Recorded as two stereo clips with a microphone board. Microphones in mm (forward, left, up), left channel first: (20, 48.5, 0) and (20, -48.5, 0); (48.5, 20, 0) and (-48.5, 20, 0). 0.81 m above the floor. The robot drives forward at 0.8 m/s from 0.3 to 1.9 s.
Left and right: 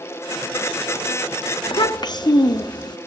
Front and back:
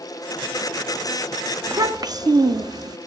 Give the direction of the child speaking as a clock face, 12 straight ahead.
8 o'clock.